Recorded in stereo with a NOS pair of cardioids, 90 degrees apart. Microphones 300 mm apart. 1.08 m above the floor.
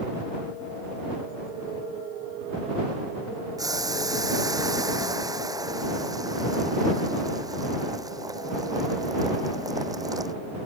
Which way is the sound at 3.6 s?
10° right.